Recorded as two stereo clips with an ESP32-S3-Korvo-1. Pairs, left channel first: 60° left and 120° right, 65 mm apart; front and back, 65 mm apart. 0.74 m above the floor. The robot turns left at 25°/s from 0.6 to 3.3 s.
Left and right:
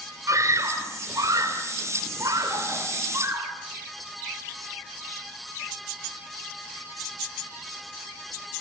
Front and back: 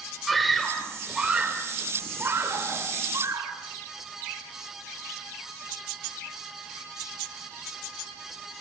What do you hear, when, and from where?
0.3 s a scream: 90° right, 3 m; by 3.5 s 160° right, 3 m